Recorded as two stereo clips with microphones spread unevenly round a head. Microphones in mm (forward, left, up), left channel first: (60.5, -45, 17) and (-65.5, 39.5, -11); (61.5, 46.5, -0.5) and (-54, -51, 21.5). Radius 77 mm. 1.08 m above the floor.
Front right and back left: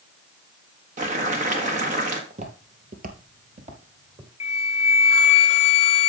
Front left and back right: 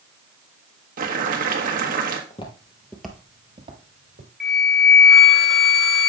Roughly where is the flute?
Ahead right.